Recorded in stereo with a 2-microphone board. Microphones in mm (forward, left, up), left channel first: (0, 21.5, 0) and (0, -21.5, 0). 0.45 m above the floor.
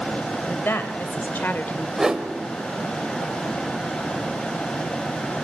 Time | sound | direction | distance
0.5 | a woman speaking | 60° left (ahead or behind) | 2.5 m
2.0 | a whoosh | 10° right (ahead or behind) | 1.6 m